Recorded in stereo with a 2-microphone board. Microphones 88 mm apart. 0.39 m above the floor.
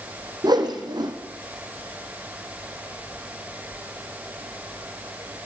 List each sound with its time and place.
0.4 s a whoosh: 50° right (ahead or behind), 3 m